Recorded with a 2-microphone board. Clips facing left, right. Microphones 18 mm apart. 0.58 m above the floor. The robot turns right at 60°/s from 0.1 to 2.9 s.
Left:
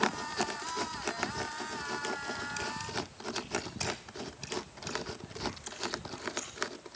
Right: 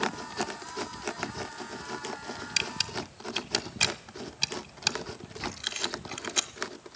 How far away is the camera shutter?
About 1.2 m.